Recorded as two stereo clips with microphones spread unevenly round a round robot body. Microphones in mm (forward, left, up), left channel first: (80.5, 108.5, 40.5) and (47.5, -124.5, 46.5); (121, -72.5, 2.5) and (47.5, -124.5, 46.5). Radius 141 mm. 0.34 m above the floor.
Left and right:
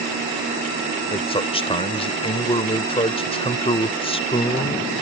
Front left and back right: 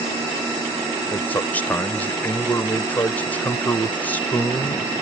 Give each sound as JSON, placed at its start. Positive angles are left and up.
{"t": 1.1, "sound": "a man speaking", "azimuth_deg": 25}